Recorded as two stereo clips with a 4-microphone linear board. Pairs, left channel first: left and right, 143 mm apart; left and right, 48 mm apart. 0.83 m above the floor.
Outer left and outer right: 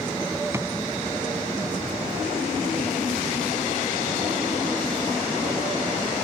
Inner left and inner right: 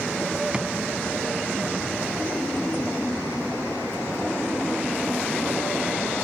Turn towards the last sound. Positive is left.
turn(degrees=-20)  # may be behind; listen again after turning